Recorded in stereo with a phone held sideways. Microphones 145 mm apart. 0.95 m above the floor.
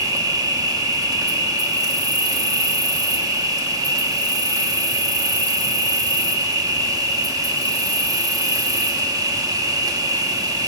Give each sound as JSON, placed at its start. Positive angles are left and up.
{"t": 0.0, "sound": "an insect", "side_deg": -25, "distance_m": 0.9}